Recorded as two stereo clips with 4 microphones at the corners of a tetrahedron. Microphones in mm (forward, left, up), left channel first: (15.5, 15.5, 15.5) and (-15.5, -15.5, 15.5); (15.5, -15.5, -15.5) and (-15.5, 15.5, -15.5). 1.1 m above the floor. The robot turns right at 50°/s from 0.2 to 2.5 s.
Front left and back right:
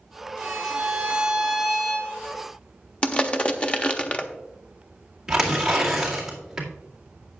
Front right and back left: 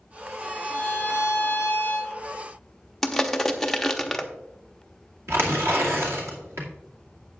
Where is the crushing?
25° left, 0.8 m.